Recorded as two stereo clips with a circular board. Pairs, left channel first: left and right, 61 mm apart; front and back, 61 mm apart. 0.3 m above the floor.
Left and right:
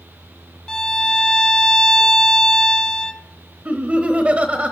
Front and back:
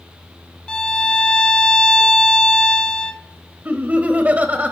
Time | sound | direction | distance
0.7 | a violin | 40° left | 0.6 m
3.6 | laughter | 140° right | 1.2 m